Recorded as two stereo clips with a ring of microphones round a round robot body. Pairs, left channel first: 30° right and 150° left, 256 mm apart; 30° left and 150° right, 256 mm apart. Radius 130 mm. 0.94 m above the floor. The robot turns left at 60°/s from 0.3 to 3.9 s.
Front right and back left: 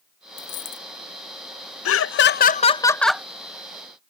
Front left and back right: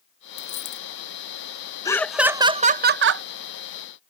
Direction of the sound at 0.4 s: 30° left.